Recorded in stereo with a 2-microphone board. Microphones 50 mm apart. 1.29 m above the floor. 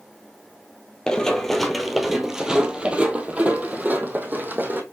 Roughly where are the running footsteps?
Centre.